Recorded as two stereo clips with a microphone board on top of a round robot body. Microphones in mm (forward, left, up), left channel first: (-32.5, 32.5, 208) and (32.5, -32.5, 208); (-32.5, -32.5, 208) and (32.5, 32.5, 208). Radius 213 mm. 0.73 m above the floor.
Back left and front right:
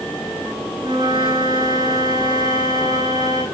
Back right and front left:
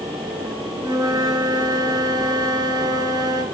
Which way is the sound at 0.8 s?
5° right.